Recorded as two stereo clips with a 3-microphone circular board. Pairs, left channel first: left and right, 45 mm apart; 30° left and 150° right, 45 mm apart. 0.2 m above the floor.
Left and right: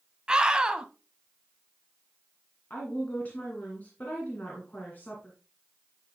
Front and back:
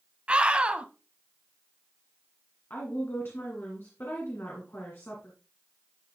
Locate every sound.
0.3 s a scream: 145° right, 1.0 m
2.7 s a woman speaking: 45° left, 2 m